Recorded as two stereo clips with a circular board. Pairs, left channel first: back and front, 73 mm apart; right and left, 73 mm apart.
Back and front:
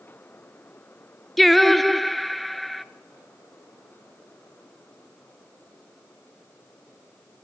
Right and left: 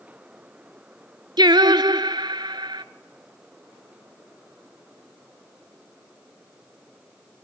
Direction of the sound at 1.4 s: 90° left.